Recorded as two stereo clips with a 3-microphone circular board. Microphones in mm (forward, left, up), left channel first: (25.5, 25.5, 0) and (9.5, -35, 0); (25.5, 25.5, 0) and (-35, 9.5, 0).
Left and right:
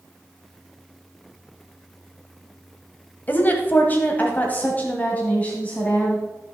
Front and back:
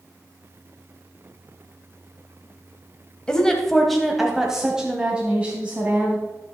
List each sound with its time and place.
3.3 s a woman speaking: 80° left, 1.4 m; by 6.2 s 140° left, 2.5 m